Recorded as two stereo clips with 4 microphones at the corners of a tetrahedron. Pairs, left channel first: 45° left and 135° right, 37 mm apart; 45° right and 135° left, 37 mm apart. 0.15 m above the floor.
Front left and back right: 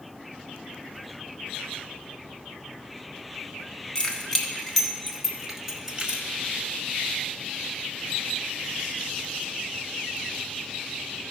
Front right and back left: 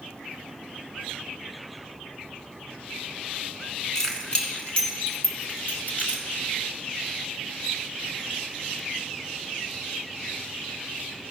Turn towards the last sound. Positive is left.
turn(degrees=-75)